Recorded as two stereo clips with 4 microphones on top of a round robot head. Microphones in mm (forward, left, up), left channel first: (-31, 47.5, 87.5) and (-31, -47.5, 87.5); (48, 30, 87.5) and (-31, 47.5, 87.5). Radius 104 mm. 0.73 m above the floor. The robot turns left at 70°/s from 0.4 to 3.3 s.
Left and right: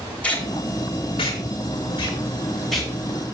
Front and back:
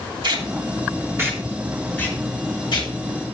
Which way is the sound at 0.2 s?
165° left.